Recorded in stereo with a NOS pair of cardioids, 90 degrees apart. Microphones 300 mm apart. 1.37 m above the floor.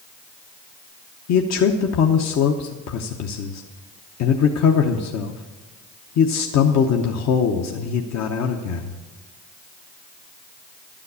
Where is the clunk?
No clunk in this recording.